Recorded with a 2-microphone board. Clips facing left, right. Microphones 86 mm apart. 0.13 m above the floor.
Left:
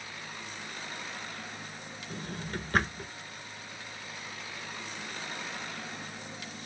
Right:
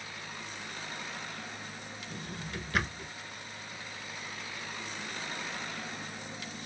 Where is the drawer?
40° left (ahead or behind), 0.6 m.